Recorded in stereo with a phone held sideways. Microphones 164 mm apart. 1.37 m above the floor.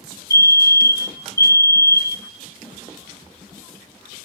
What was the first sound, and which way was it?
A fire alarm, 20° left (ahead or behind).